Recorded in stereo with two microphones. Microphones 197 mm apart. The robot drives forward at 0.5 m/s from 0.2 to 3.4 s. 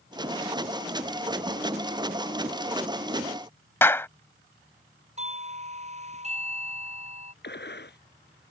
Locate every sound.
3.8 s a clap: 10° left (ahead or behind)
5.2 s a doorbell: 35° right (ahead or behind)
7.4 s a gunshot: 60° left (ahead or behind)